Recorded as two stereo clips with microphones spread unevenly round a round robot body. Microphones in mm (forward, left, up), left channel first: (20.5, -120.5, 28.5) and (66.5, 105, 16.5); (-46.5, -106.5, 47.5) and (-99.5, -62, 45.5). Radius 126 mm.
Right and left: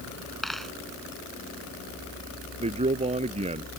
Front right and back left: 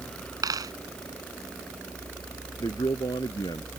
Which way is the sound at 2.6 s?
15° left.